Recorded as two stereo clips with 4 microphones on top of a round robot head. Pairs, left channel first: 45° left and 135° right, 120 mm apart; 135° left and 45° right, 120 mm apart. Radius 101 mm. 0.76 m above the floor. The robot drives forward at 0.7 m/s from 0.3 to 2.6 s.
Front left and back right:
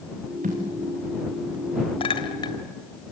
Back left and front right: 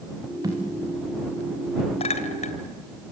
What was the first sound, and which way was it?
A thud, 110° right.